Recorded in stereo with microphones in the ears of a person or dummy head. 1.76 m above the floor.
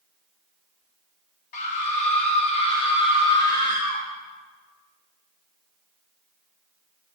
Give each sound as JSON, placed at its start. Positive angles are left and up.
{"t": 1.5, "sound": "a scream", "side_deg": 40, "distance_m": 1.8}